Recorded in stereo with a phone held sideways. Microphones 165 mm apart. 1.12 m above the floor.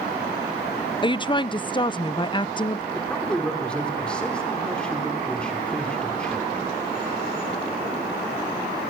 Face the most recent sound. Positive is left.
turn(degrees=5)  # may be behind; listen again after turning